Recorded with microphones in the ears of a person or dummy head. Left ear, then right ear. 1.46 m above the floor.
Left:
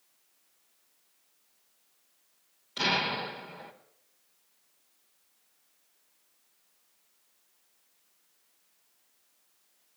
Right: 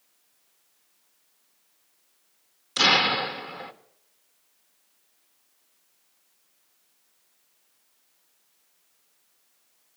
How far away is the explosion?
About 1.4 m.